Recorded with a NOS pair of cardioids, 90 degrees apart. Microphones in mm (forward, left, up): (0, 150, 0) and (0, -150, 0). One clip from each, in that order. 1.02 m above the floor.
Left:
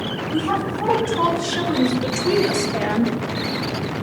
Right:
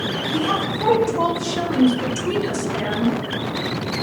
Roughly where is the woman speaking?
Ahead.